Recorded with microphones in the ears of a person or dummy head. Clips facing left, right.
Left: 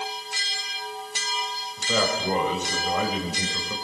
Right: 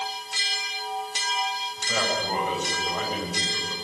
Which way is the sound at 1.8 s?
80° left.